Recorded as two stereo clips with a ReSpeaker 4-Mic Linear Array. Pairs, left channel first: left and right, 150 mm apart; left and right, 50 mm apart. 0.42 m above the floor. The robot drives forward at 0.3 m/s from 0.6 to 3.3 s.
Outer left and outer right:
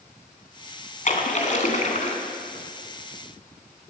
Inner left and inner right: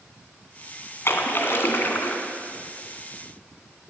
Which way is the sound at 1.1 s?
55° left (ahead or behind).